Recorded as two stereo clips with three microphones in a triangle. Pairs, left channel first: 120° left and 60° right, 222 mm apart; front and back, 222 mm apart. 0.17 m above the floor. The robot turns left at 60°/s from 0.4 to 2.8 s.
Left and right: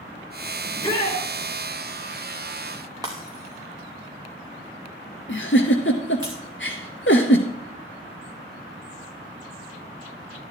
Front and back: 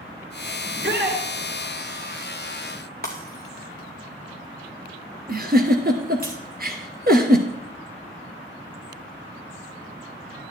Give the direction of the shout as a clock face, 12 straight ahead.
5 o'clock.